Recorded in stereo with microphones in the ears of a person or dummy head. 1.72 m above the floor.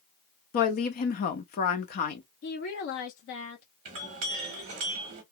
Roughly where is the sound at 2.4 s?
Left.